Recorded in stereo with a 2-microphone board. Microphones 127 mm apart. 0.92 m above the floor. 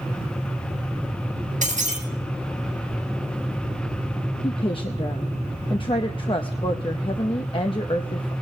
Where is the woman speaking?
45° left (ahead or behind), 0.8 m.